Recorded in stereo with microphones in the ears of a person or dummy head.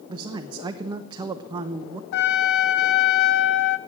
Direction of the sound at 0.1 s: 20° right (ahead or behind).